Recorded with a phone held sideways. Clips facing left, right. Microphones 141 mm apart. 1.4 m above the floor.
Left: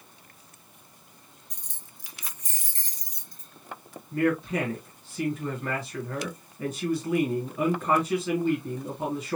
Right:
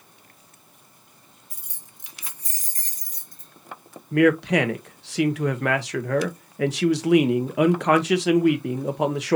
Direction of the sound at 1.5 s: 5° right (ahead or behind).